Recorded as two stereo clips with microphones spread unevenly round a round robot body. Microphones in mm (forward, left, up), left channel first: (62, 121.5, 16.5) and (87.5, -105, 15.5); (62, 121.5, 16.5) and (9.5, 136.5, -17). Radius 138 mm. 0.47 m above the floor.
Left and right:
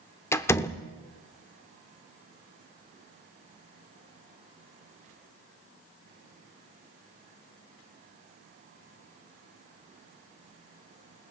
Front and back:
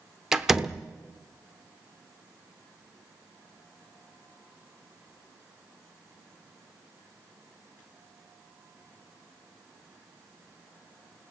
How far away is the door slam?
About 0.7 m.